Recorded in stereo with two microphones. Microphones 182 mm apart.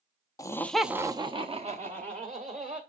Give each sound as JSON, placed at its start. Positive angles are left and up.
{"t": 0.4, "sound": "laughter", "side_deg": 20, "distance_m": 0.6}